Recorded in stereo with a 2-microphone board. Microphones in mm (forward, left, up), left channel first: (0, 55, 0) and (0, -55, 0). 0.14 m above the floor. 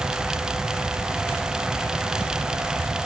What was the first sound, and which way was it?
Only background noise.